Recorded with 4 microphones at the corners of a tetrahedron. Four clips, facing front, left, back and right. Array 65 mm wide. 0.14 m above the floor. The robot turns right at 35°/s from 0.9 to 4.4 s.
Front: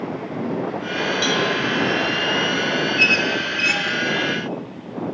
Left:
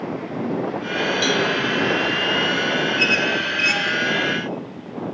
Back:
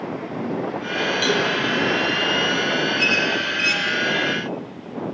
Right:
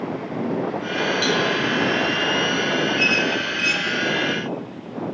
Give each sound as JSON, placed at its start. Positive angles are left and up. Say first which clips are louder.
{"t": 1.2, "sound": "a cowbell", "louder": "left 1 dB, even", "azimuth_deg": 40, "distance_m": 2.0}
{"t": 3.0, "sound": "a squeak", "louder": "left 1 dB, front 2 dB", "azimuth_deg": 20, "distance_m": 0.9}